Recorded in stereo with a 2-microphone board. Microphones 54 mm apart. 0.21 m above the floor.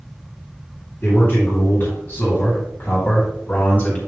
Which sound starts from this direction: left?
A man speaking, at 1.0 s.